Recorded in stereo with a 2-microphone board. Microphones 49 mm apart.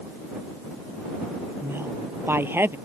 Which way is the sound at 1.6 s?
50° right (ahead or behind).